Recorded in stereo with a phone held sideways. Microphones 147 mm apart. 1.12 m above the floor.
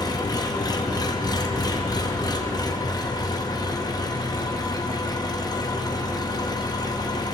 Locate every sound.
0.0 s an engine running: 30° left (ahead or behind), 0.8 m